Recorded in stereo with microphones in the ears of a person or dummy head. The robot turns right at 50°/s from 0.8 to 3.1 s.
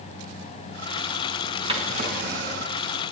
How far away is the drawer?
About 4 m.